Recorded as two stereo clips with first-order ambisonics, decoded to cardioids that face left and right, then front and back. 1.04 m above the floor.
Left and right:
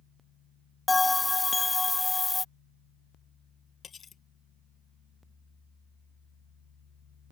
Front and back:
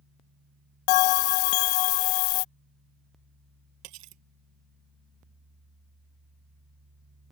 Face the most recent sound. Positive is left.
turn(degrees=155)